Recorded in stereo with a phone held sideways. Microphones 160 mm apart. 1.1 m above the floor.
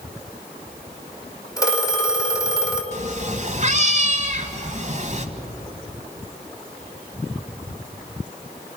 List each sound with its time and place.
1.6 s a phone ringing: 20° left (ahead or behind), 2.5 m
2.9 s a cat meowing: 50° right (ahead or behind), 1.3 m